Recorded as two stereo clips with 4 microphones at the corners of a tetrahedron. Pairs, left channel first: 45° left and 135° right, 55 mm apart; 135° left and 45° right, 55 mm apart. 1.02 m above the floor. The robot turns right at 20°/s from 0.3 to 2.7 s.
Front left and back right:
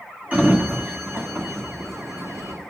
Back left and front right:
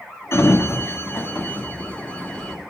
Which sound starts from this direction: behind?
A sliding door, at 0.3 s.